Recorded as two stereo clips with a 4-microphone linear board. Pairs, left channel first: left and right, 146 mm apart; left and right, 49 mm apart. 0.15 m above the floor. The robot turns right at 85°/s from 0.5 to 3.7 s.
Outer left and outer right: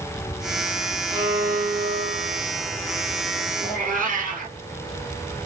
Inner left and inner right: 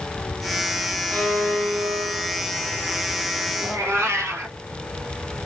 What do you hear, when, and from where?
1.1 s a violin: 30° left, 2.5 m; by 2.4 s 140° left, 2.5 m
3.6 s a cat meowing: 65° right (ahead or behind), 1.8 m; by 4.5 s 70° right (ahead or behind), 1.8 m